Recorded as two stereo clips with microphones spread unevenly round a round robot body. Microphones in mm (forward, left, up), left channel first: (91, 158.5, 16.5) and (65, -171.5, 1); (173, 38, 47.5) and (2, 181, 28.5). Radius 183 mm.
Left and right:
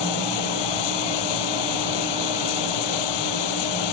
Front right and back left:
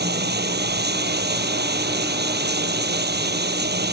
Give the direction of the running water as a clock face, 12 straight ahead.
9 o'clock.